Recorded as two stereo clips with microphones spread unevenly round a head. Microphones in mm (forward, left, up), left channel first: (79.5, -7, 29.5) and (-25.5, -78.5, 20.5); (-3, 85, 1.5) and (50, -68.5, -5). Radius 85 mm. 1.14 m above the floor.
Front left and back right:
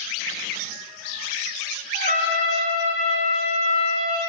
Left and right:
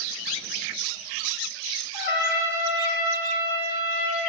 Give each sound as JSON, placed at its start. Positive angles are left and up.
{"t": 1.9, "sound": "a trumpet", "azimuth_deg": 170, "distance_m": 4.0}